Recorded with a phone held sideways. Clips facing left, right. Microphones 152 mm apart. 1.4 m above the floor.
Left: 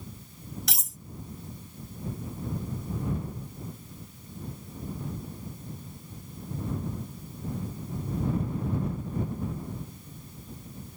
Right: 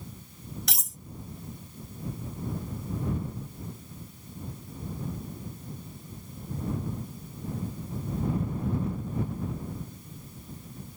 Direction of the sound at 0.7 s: Centre (ahead or behind).